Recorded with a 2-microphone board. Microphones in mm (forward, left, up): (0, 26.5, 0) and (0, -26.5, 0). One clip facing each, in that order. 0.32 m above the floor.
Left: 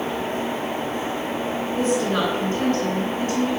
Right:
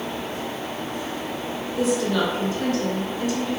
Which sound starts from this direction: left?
A woman speaking, at 1.8 s.